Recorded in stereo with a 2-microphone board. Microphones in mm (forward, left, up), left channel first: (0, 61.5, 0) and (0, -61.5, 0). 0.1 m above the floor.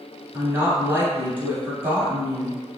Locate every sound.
0.3 s a woman speaking: 15° right (ahead or behind), 1.2 m